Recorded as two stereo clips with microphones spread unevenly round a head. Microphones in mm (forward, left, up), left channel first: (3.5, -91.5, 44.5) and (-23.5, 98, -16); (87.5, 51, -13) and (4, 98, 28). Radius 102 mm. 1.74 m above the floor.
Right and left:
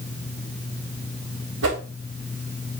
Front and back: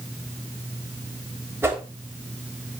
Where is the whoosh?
85° left, 3 m.